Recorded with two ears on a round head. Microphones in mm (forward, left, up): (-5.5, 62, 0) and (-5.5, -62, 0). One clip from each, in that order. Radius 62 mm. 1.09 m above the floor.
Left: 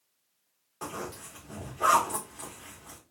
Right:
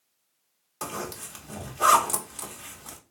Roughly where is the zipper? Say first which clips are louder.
Right 3 dB; right.